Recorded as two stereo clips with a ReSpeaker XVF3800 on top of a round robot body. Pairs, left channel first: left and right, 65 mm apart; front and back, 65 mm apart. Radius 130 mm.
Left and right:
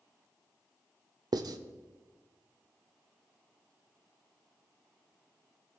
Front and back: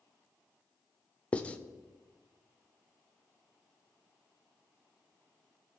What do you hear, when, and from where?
1.3 s writing: 70° right, 0.6 m